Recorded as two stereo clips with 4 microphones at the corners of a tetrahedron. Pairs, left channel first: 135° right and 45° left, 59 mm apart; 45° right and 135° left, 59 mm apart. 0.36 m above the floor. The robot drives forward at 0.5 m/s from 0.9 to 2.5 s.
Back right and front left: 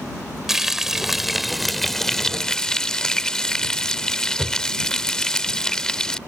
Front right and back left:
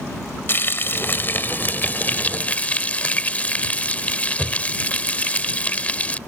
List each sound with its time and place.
0.5 s frying: 35° right; by 6.2 s 65° right